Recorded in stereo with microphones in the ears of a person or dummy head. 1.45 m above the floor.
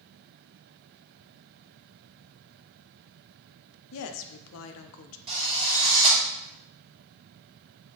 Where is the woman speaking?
75° left (ahead or behind), 0.5 m.